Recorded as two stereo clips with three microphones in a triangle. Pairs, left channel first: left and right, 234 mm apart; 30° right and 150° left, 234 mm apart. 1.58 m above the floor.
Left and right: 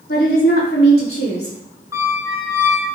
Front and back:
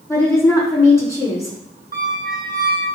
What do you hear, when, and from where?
0.1 s a woman speaking: 45° left, 5.5 m
1.9 s a squeak: 165° right, 1.7 m